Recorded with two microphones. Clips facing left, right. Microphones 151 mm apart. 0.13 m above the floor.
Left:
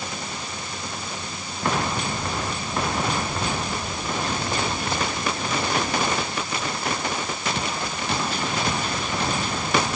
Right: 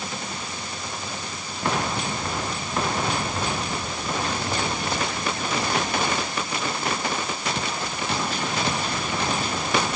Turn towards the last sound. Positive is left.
No sound to turn to.